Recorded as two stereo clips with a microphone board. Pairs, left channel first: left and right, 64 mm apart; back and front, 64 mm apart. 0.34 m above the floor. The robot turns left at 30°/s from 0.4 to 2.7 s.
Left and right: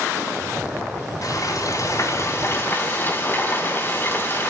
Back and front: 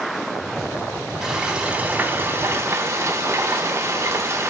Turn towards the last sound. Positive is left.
turn(degrees=40)